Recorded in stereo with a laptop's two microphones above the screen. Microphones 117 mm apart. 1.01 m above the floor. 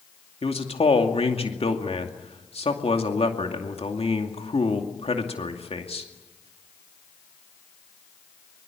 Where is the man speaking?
55° left (ahead or behind), 2.5 m.